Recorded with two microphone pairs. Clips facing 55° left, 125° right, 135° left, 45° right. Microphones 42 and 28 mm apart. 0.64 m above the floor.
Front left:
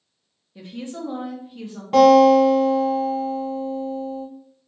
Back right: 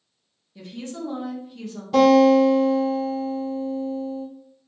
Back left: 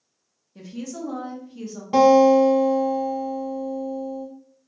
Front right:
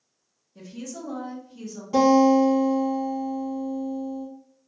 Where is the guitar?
90° left, 1.3 m.